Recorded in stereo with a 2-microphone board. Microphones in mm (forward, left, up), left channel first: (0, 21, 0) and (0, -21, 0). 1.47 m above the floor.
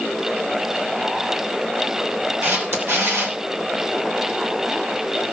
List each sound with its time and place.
2.4 s a camera shutter: 65° right (ahead or behind), 3 m